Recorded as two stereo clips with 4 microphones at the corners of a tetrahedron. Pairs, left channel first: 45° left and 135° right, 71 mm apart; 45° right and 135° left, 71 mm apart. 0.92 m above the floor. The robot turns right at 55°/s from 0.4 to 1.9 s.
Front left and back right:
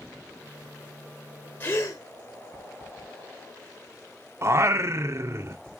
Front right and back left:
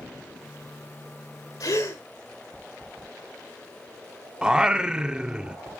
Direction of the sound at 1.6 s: 20° right.